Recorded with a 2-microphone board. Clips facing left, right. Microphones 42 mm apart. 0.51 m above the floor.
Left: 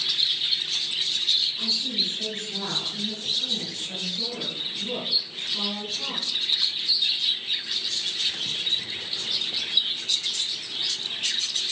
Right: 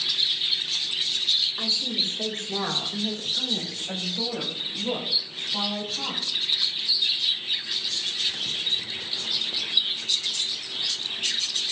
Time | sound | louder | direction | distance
1.6 | a woman speaking | even | 50° right (ahead or behind) | 3 m